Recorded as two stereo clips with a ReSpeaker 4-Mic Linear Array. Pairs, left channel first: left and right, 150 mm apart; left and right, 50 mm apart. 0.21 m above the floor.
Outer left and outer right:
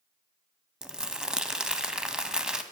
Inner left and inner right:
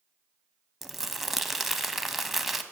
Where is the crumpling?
5° right (ahead or behind), 0.6 m.